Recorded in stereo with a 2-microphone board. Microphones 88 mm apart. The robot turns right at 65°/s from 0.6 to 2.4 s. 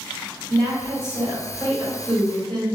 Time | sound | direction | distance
0.5 | a woman speaking | 80° right | 1.4 m